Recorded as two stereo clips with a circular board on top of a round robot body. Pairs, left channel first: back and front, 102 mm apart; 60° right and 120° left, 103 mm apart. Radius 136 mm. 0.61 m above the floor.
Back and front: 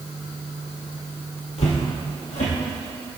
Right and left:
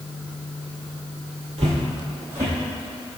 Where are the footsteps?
155° left, 1.3 m; by 3.2 s 155° right, 2.5 m.